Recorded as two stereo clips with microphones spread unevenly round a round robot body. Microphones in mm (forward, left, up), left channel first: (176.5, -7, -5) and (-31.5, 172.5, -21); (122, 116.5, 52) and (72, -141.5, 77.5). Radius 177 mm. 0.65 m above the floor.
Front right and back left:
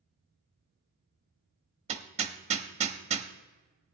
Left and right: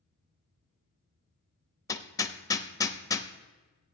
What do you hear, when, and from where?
1.9 s hammering: 130° left, 0.7 m